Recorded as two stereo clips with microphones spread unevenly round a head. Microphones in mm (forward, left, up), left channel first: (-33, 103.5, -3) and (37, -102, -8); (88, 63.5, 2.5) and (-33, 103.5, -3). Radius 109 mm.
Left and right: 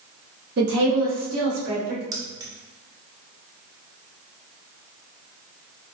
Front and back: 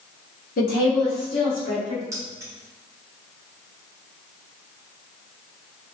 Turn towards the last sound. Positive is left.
turn(degrees=-135)